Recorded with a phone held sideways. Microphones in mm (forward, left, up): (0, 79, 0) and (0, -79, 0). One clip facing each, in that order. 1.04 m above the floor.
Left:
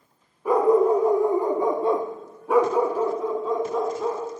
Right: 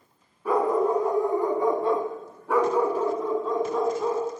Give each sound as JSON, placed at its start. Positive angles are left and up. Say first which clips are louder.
{"t": 0.5, "sound": "a dog barking", "louder": "left 5 dB", "side_deg": 15, "distance_m": 0.9}